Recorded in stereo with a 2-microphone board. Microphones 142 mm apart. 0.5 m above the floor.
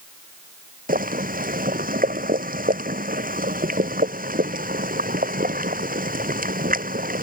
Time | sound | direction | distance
0.9 | boiling | 80° right | ?